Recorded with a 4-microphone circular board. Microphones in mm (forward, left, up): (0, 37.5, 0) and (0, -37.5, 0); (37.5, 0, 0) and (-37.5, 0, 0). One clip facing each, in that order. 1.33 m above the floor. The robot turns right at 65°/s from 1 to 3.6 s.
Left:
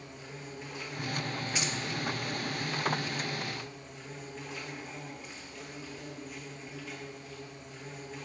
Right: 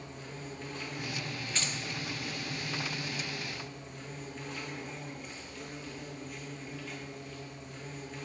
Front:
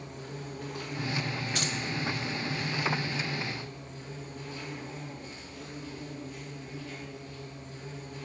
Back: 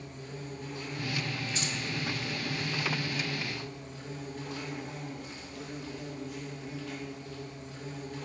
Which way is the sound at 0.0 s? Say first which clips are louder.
Right 1 dB, front 1 dB; 10° left.